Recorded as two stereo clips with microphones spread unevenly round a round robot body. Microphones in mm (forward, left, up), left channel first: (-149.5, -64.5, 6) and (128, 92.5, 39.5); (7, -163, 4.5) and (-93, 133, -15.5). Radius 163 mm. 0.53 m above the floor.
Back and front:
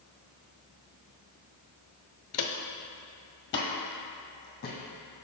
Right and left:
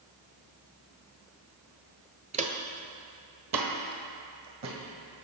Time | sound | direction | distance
2.3 | footsteps | 175° left | 0.6 m